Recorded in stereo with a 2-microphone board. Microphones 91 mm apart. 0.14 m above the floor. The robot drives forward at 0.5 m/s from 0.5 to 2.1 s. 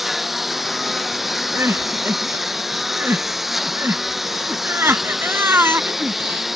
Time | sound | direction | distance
0.0 | a lawn mower | centre (ahead or behind) | ?
1.5 | crying | 30° right (ahead or behind) | ?